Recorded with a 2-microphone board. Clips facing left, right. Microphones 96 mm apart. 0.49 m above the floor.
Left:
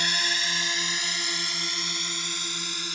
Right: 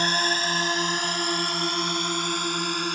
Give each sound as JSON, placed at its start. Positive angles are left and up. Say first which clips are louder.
{"t": 0.0, "sound": "a drone", "louder": "right 6 dB", "side_deg": -40}